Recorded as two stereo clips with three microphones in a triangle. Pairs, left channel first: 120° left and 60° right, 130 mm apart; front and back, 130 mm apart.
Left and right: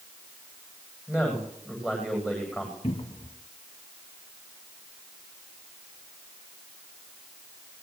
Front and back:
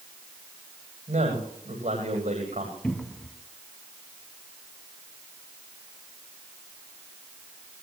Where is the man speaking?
145° right, 9.5 m.